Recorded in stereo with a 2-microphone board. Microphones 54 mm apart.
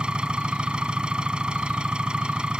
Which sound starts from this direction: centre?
An engine running, at 0.0 s.